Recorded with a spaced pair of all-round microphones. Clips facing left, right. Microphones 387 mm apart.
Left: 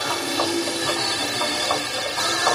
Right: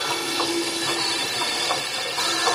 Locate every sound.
0.0 s a machine running: 55° left (ahead or behind), 1.3 m